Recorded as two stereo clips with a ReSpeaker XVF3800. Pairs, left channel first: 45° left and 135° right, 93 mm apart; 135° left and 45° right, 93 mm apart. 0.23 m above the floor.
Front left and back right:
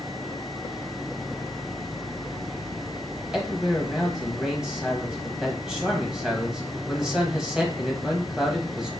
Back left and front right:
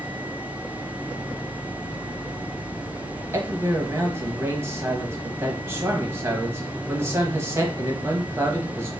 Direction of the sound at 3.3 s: 55° right.